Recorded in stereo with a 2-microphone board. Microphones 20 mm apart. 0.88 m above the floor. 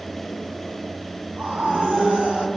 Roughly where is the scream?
Right.